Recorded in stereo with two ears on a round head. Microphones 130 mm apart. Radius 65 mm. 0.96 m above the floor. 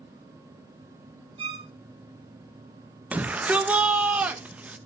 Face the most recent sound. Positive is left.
turn(degrees=-10)  # may be behind; listen again after turning